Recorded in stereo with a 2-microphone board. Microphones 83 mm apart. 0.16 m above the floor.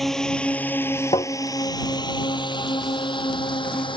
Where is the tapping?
75° left (ahead or behind).